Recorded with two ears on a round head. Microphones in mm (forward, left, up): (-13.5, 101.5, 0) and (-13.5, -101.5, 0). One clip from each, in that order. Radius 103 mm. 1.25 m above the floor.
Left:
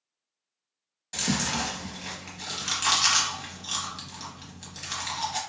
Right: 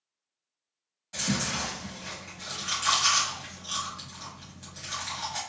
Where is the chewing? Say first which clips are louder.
Left 2 dB; 20° left (ahead or behind), 1.1 m.